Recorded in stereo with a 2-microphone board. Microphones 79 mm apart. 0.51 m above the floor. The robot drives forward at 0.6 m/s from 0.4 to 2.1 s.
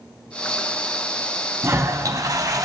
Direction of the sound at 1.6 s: 35° right (ahead or behind).